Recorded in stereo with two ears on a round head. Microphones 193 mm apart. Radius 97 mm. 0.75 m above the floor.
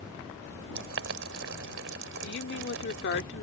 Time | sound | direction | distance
0.8 | boiling | 60° right (ahead or behind) | ?
2.2 | a woman speaking | 50° left (ahead or behind) | ?